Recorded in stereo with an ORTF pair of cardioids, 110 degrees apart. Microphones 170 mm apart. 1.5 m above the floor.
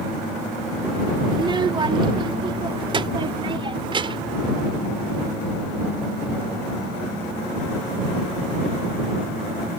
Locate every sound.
1.3 s a child speaking: 25° right; by 4.4 s 30° right